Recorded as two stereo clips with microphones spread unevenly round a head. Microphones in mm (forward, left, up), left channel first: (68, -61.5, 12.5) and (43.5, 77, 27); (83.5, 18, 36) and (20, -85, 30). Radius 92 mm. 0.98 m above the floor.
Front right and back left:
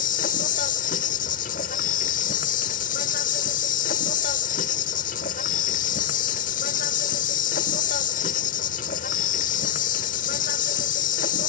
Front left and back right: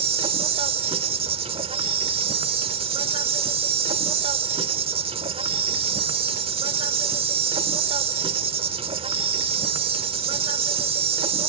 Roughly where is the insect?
Right.